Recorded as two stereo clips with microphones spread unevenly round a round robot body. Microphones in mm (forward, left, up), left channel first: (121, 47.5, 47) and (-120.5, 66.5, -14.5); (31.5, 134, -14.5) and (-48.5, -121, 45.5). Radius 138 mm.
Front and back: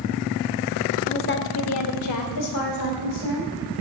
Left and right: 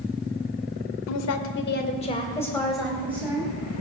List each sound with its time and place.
1.1 s a woman speaking: 60° left, 1.7 m; by 3.5 s 25° right, 3.5 m